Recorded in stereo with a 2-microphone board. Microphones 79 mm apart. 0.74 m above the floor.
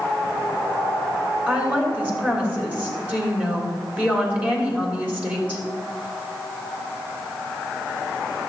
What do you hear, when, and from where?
1.5 s a woman speaking: 15° right (ahead or behind), 3 m